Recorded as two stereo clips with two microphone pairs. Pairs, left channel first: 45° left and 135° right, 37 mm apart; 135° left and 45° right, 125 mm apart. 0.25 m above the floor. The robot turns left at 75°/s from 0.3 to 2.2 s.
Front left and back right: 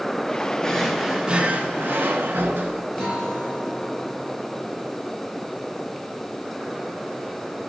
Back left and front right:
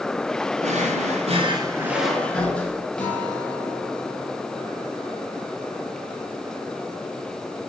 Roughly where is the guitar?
Behind right.